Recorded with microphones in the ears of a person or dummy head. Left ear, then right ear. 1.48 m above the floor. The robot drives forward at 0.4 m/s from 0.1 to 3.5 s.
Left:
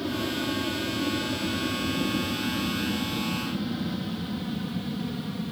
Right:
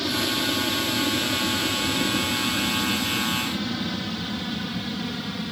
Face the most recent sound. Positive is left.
turn(degrees=-60)  # may be behind; listen again after turning